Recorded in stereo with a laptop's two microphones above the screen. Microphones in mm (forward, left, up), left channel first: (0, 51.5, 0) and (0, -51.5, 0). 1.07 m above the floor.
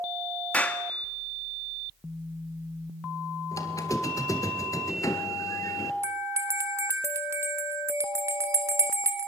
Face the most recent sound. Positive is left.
turn(degrees=-30)  # may be behind; listen again after turning